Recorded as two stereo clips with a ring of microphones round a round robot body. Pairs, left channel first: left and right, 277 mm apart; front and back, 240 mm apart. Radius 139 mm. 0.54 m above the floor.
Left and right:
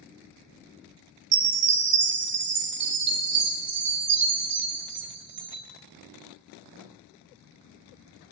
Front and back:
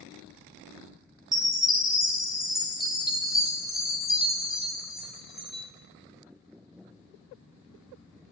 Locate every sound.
1.3 s a chime: 95° right, 0.5 m